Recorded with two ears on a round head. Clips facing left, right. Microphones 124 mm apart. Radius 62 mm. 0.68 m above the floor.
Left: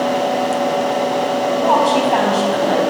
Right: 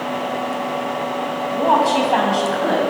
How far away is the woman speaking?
About 4 m.